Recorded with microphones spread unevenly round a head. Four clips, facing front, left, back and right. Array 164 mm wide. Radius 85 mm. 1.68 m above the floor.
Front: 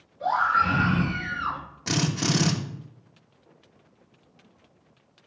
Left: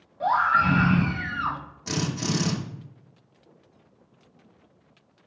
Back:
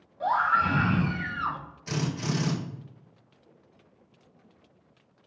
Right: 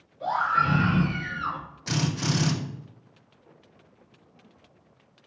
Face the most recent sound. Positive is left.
turn(degrees=10)